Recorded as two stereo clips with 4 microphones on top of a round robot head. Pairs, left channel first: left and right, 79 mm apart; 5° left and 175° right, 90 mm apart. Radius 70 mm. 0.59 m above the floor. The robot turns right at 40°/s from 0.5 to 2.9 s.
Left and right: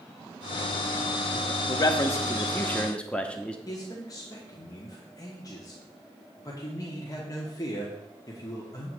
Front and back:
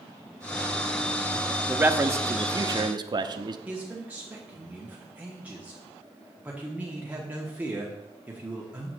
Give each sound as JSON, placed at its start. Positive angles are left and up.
{"t": 1.7, "sound": "a man speaking", "azimuth_deg": 115, "distance_m": 0.8}
{"t": 3.7, "sound": "a man speaking", "azimuth_deg": 115, "distance_m": 1.3}